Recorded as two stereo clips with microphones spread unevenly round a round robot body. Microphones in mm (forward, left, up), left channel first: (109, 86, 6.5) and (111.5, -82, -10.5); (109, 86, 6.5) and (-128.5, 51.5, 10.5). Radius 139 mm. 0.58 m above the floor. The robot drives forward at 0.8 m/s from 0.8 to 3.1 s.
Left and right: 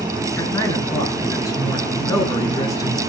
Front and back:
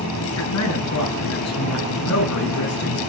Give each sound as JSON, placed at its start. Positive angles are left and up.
{"t": 0.4, "sound": "a man speaking", "azimuth_deg": 15, "distance_m": 8.0}